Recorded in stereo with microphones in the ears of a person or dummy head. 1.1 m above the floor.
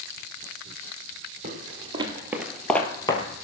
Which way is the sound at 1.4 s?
50° right (ahead or behind).